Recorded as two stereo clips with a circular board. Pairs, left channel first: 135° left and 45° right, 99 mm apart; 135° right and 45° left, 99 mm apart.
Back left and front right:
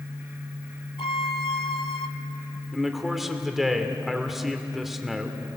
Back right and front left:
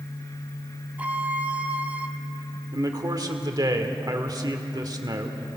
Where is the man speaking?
45° left, 1.7 m.